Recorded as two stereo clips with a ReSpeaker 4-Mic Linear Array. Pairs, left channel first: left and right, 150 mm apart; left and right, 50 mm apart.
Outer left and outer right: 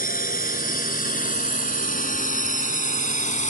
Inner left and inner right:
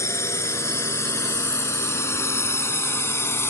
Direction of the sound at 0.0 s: 70° left (ahead or behind).